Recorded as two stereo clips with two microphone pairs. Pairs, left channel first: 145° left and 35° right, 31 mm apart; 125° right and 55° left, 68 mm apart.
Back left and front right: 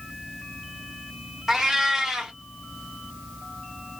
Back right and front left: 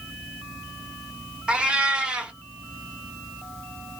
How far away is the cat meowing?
About 0.7 m.